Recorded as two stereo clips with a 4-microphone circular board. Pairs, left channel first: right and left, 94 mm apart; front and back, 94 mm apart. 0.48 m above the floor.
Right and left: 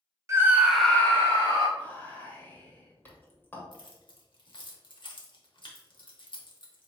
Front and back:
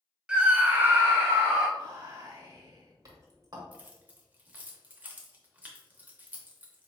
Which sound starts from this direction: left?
A scream, at 0.3 s.